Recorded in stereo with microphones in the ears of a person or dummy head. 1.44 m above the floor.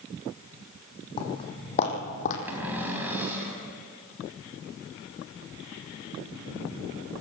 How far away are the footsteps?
About 3 m.